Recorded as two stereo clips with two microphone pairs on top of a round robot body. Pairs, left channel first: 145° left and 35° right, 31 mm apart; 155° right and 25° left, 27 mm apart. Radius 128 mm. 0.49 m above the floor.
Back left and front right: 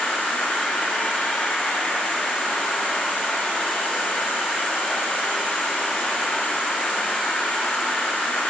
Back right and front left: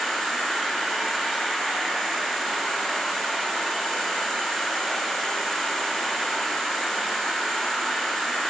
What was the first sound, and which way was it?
An insect, 130° left.